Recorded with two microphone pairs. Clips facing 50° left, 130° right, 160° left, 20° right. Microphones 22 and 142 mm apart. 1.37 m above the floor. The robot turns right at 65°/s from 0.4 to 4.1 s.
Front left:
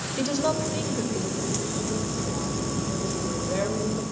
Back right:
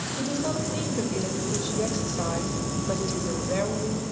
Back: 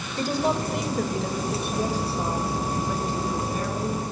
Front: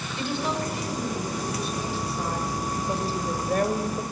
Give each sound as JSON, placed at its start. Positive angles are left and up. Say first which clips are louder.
{"t": 0.2, "sound": "a woman speaking", "louder": "front left 4 dB, back 4 dB", "azimuth_deg": 110, "distance_m": 7.0}